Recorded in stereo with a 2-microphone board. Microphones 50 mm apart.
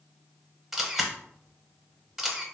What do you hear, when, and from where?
0.7 s a camera shutter: 5° right (ahead or behind), 0.5 m